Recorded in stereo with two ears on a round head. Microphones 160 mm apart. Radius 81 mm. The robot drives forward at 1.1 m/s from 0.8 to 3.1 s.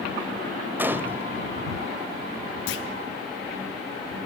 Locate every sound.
0.8 s a gunshot: 10° right (ahead or behind), 1.2 m
2.7 s a clunk: 70° left (ahead or behind), 2.5 m; by 2.9 s 75° left (ahead or behind), 2.5 m